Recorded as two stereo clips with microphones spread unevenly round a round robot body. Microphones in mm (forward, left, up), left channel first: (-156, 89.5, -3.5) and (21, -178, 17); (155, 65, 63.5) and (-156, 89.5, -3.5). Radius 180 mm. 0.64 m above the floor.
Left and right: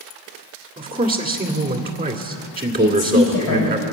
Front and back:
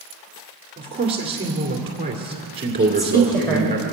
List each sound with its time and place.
0.8 s a man speaking: 120° right, 2.0 m
2.8 s a woman speaking: 80° left, 3.5 m